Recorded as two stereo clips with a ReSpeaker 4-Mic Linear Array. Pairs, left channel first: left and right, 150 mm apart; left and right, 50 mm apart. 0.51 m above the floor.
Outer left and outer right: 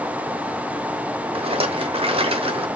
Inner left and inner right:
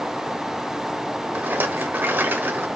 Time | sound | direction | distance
1.4 | a rattle | 45° right (ahead or behind) | 1.0 m